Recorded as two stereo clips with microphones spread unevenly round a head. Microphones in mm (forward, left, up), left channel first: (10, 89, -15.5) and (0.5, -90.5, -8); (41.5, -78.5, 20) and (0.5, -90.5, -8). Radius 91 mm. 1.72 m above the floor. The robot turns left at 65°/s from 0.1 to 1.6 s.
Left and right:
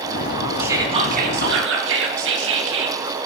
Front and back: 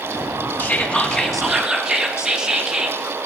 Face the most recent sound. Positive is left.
turn(degrees=-80)